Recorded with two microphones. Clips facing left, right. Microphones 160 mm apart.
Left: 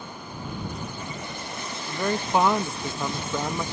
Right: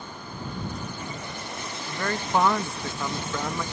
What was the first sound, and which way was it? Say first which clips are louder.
A man speaking: left 2 dB; 15° left (ahead or behind).